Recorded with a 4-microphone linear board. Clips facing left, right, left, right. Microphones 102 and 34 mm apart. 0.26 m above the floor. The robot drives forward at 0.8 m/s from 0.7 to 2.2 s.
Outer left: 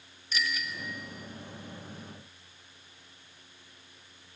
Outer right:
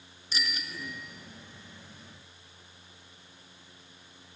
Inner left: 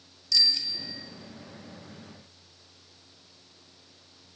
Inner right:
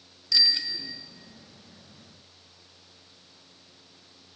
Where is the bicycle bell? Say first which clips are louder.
Outer left 3 dB, inner right 1 dB; 30° right (ahead or behind), 2.5 m.